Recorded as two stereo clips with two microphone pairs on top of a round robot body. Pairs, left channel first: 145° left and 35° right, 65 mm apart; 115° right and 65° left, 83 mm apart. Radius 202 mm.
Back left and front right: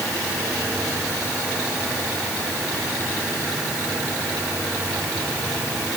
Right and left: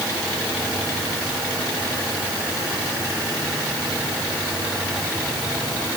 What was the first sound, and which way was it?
Only background noise.